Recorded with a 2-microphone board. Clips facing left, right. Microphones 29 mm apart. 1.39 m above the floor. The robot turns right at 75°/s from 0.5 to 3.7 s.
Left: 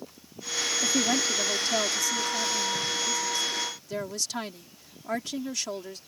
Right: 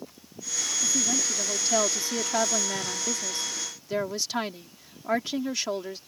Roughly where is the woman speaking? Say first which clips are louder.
Left 2 dB; behind left.